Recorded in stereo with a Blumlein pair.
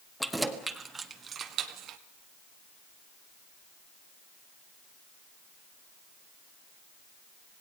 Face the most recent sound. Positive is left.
turn(degrees=-35)